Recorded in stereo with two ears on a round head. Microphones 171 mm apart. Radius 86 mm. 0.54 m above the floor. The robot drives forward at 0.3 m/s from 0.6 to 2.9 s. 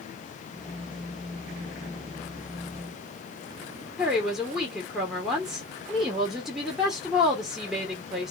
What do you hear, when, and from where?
4.0 s a woman speaking: 5° right (ahead or behind), 1.3 m